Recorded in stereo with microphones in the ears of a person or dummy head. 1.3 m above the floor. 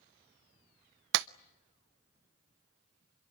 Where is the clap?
65° right (ahead or behind), 0.5 m.